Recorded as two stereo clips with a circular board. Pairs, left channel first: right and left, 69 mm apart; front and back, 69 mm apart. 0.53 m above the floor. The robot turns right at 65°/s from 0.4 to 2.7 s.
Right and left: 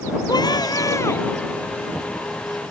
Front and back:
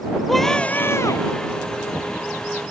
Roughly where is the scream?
Right.